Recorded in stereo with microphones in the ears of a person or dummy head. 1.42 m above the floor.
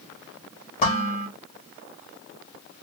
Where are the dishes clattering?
40° left (ahead or behind), 3 m.